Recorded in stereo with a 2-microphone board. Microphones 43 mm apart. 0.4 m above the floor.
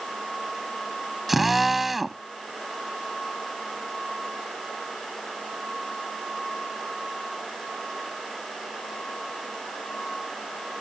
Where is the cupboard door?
I don't hear a cupboard door.